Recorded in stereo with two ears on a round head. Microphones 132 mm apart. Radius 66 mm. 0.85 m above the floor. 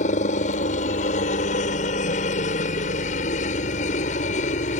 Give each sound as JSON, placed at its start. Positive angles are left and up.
{"t": 0.0, "sound": "a helicopter", "side_deg": 50}